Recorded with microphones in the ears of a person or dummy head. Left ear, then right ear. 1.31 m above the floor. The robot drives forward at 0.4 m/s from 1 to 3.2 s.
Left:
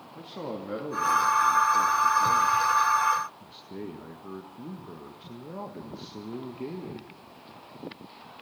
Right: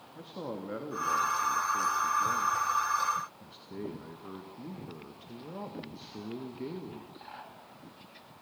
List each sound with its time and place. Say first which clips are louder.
0.1 s a man speaking: left 3 dB; centre (ahead or behind), 2.5 m